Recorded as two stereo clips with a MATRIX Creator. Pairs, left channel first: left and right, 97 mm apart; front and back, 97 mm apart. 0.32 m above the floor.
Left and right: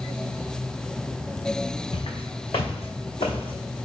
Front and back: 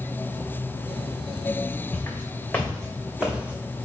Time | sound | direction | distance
1.9 | footsteps | 65° left | 1.6 m